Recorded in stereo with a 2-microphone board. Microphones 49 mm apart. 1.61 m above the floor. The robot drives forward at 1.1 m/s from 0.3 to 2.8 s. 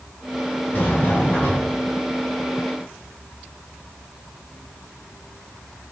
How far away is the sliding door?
About 6 m.